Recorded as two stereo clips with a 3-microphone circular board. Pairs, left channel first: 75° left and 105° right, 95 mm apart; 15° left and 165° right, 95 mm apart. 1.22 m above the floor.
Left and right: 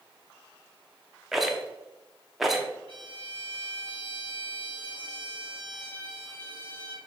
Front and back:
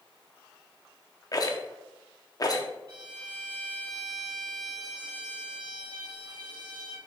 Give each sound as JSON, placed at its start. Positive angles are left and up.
{"t": 1.3, "sound": "a rattle", "azimuth_deg": -15, "distance_m": 0.9}
{"t": 2.9, "sound": "a violin", "azimuth_deg": -135, "distance_m": 2.0}